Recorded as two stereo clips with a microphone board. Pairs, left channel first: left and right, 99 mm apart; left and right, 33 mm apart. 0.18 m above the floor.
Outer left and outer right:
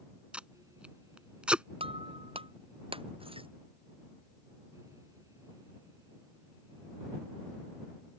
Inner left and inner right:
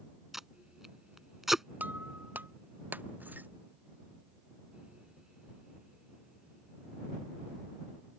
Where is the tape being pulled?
10° right (ahead or behind).